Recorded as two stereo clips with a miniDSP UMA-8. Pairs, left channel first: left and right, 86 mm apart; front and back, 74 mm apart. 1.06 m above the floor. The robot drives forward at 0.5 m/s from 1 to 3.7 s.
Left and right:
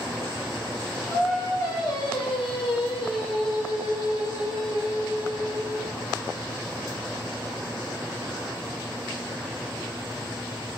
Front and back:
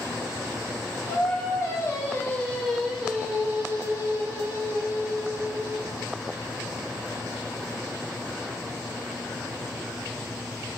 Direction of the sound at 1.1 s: 35° left.